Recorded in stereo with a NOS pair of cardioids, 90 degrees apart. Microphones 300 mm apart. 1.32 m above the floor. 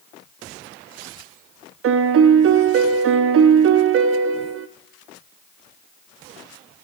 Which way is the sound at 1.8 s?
50° right.